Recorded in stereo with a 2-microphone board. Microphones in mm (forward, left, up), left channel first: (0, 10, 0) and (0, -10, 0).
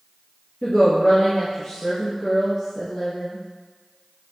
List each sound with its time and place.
0.6 s a woman speaking: 10° left (ahead or behind), 2 m